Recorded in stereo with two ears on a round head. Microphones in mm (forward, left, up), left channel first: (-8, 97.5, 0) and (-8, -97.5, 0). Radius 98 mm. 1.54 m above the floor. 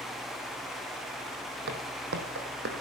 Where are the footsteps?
55° right (ahead or behind), 2.5 m; by 2.7 s 45° right (ahead or behind), 3 m.